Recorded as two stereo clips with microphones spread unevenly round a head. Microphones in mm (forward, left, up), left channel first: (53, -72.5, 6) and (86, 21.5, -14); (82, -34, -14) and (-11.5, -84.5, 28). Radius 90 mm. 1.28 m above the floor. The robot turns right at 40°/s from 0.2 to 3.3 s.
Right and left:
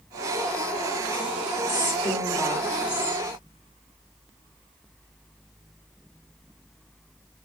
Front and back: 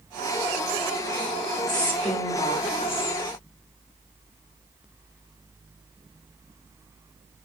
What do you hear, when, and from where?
1.7 s a woman speaking: 55° right, 4.5 m; by 3.2 s 5° left, 4.5 m